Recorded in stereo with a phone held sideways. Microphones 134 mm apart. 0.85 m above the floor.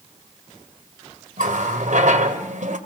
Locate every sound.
1.4 s a running tap: 70° right (ahead or behind), 2 m